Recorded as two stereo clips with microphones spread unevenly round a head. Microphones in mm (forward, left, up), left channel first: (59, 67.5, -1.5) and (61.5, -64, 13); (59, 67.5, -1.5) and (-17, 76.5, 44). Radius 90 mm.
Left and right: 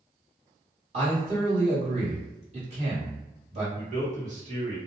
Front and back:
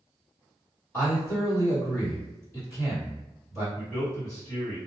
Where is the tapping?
I don't hear tapping.